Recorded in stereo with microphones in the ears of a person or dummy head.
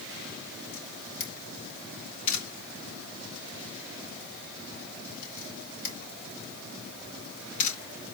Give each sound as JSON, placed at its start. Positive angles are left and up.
{"t": 0.7, "sound": "a camera shutter", "side_deg": 45, "distance_m": 3.0}